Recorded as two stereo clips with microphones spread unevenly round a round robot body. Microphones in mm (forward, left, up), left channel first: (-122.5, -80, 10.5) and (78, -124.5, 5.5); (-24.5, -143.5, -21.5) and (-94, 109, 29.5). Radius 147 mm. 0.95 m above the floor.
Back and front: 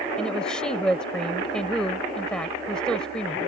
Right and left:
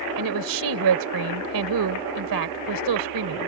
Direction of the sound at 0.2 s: 80° left.